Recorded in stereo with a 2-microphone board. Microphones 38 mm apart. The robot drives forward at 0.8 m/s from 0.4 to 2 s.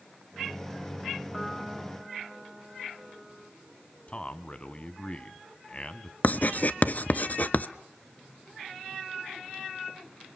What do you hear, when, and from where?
1.3 s a piano: 5° left (ahead or behind), 1.9 m
4.1 s a man speaking: 35° left (ahead or behind), 1.4 m
6.2 s writing: 50° left (ahead or behind), 0.7 m